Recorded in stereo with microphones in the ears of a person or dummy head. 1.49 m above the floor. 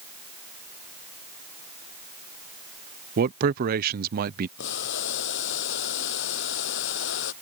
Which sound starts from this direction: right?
A man speaking, at 3.2 s.